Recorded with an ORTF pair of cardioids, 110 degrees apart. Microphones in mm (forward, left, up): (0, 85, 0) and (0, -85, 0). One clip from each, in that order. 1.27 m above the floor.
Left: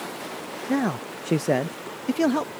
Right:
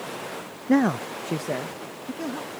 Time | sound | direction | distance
0.7 | a man speaking | 25° right | ?